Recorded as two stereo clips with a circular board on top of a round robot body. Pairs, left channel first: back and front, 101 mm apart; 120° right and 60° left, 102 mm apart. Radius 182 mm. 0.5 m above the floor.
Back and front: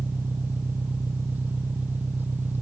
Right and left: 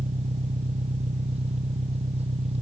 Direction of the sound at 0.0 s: 75° left.